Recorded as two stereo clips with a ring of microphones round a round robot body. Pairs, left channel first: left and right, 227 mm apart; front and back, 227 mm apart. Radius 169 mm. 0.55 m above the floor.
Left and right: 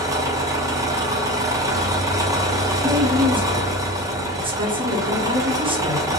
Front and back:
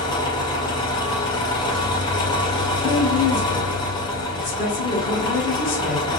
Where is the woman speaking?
25° right, 1.2 m.